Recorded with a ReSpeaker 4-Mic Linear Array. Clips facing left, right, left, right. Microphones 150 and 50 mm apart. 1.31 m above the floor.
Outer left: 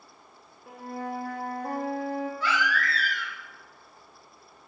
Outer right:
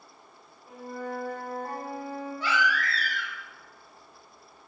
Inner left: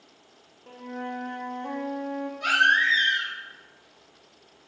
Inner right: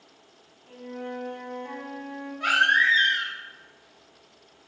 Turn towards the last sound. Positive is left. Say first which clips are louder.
# even, even
turn(degrees=-25)  # may be behind; listen again after turning